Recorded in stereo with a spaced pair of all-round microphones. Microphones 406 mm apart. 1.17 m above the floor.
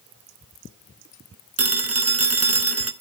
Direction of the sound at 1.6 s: 35° right (ahead or behind).